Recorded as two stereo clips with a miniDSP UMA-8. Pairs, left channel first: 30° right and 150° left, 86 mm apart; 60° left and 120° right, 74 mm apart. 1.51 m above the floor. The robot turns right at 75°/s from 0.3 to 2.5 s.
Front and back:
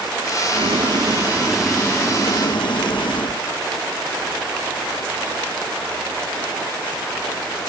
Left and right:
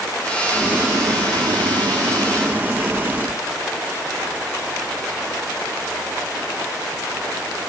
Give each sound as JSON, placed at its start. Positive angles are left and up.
{"t": 0.5, "sound": "boiling", "azimuth_deg": 155}